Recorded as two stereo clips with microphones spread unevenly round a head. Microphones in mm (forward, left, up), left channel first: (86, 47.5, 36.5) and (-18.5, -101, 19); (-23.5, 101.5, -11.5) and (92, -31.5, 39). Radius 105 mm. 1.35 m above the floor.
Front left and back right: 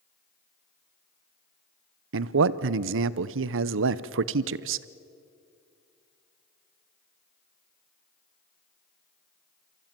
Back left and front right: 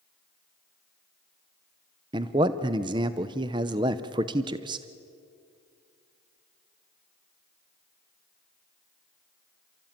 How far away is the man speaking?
About 0.6 m.